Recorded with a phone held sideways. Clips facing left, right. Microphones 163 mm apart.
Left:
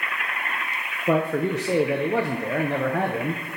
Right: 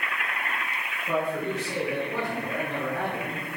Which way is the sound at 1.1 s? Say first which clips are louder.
Left 6 dB; 70° left (ahead or behind).